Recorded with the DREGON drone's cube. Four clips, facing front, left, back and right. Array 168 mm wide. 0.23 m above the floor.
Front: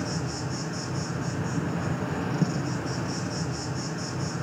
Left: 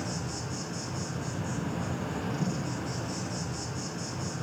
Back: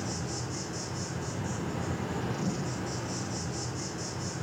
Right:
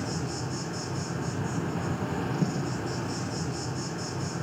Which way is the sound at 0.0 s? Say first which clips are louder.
Right 3 dB, front 4 dB; 20° right.